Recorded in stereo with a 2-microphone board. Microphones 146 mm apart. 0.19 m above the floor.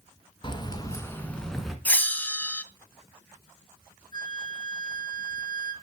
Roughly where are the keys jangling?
Left.